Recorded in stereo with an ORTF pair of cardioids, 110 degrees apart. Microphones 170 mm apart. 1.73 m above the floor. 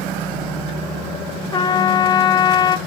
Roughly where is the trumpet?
Ahead left.